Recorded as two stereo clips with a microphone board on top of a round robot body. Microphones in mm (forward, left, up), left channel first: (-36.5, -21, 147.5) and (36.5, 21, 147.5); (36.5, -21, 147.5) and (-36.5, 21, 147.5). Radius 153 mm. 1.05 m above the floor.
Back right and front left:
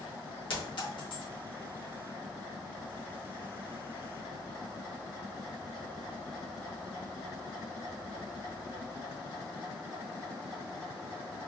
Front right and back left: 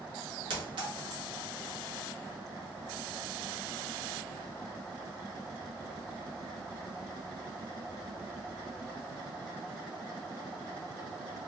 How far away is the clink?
About 1.4 m.